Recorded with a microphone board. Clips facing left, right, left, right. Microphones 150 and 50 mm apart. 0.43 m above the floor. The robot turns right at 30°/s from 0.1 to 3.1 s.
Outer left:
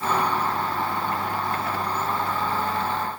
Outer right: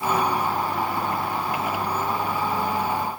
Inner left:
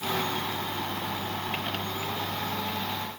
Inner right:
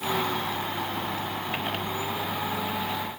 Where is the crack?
I don't hear a crack.